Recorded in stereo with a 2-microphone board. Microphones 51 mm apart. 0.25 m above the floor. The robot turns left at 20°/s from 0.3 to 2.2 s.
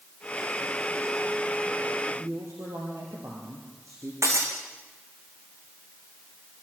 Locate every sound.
2.1 s a woman speaking: 80° right, 5.5 m
4.2 s breaking glass: 75° right (ahead or behind), 4 m